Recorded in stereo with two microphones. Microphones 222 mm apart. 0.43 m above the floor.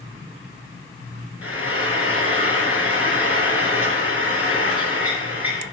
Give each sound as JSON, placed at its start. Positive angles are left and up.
{"t": 1.4, "sound": "frying", "side_deg": -80, "distance_m": 3.0}